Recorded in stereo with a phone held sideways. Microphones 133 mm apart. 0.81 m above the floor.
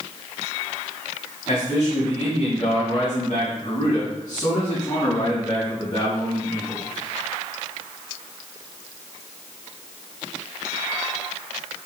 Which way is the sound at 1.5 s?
55° left (ahead or behind).